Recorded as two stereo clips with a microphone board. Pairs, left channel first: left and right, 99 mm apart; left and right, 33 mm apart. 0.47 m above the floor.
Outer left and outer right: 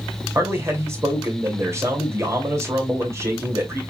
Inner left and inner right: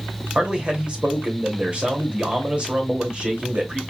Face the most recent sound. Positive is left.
turn(degrees=-30)  # may be behind; listen again after turning